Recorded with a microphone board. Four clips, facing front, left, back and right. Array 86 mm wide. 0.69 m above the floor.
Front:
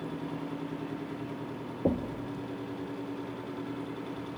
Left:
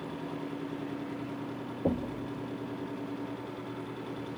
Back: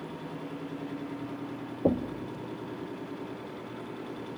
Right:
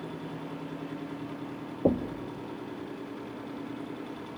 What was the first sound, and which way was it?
Knocking, 120° right.